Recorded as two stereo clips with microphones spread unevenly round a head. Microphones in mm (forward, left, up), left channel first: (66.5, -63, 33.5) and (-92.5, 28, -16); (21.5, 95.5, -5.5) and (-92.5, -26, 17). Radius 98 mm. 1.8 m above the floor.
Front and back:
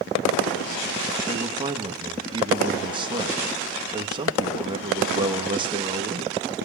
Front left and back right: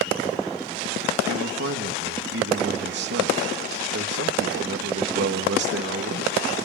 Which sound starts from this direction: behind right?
A man speaking, at 1.3 s.